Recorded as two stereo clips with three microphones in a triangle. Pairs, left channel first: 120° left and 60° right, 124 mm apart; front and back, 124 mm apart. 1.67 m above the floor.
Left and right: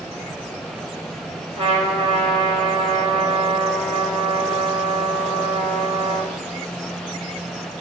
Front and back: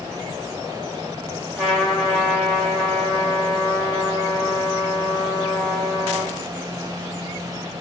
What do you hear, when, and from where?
1.6 s a trumpet: 95° right, 1.9 m